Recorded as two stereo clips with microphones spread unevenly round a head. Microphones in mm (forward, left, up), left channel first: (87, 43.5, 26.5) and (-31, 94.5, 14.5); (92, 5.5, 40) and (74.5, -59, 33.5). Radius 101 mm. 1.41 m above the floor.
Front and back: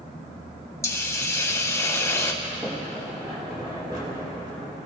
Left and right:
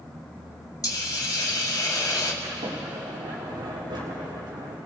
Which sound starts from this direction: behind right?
A sliding door, at 2.4 s.